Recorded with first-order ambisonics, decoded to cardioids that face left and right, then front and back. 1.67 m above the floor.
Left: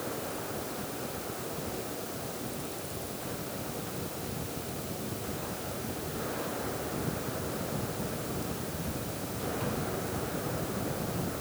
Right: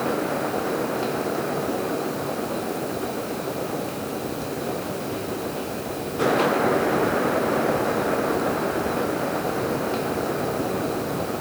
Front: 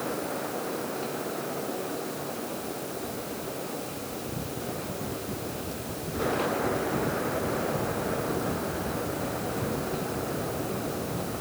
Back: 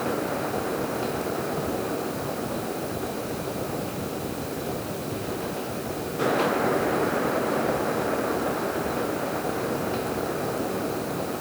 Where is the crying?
I don't hear crying.